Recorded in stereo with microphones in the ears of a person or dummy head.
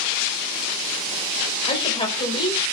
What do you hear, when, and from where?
1.7 s a woman speaking: 30° left (ahead or behind), 5 m